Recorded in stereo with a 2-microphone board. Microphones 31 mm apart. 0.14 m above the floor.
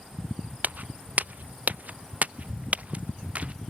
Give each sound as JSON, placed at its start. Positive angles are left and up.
{"t": 0.6, "sound": "footsteps", "side_deg": -65}